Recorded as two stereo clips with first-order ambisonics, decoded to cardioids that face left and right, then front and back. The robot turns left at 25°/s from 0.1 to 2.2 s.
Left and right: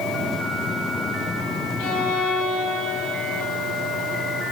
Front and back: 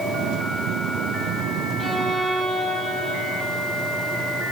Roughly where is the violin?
Left.